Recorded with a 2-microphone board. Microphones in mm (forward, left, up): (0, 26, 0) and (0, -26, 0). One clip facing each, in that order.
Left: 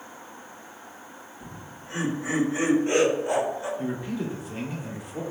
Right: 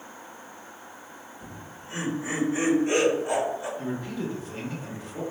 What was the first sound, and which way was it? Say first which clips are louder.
Laughter: even; 40° left (ahead or behind).